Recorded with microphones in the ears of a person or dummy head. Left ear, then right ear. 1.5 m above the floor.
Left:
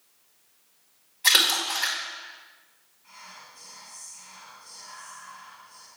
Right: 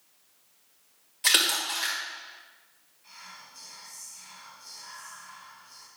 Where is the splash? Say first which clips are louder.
Left 3 dB; 45° right (ahead or behind), 1.7 m.